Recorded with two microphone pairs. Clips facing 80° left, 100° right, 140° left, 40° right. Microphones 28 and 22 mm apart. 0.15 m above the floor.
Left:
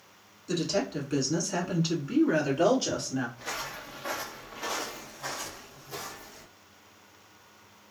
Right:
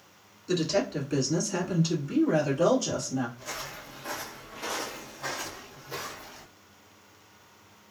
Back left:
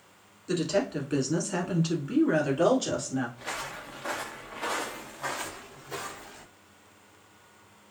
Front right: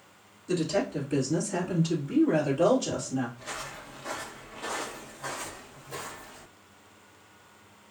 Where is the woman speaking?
170° right, 1.4 m; by 3.3 s 105° left, 1.8 m.